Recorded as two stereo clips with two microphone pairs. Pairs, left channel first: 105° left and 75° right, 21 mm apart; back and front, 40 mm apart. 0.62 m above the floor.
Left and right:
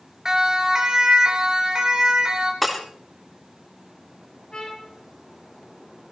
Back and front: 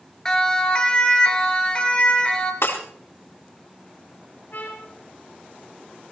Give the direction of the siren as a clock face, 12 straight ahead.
4 o'clock.